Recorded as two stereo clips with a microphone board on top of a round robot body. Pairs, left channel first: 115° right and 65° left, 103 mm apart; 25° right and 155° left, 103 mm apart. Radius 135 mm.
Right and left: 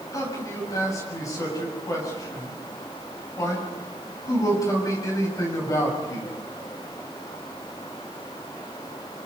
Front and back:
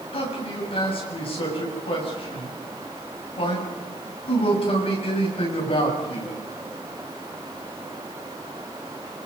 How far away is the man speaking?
About 7.5 m.